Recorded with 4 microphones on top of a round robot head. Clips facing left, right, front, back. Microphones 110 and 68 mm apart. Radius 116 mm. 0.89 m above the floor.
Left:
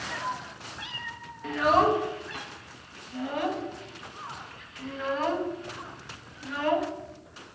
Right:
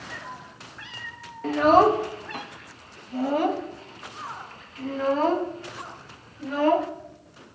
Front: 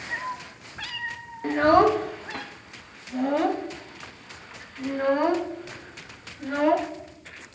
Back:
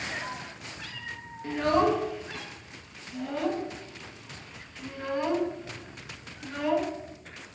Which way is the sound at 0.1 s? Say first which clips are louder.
Left 9 dB, front 4 dB; 35° left.